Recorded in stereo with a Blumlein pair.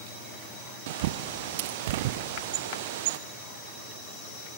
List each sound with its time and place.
0.9 s a bird: 55° right, 0.6 m